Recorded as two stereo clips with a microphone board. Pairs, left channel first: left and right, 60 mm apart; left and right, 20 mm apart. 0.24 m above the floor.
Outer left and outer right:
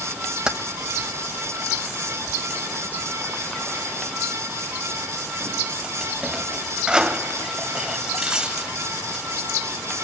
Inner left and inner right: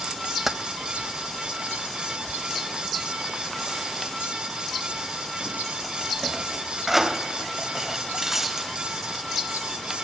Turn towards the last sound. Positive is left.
turn(degrees=-15)  # may be behind; listen again after turning